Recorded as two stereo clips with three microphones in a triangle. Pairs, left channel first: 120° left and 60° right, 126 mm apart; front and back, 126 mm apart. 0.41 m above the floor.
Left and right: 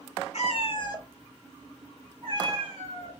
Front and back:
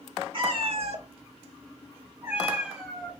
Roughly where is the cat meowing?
Behind left.